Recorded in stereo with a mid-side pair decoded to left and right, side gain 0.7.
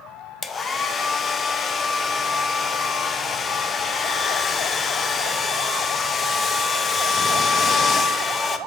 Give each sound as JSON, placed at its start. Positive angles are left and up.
{"t": 0.4, "sound": "a hair dryer", "azimuth_deg": 25, "distance_m": 0.6}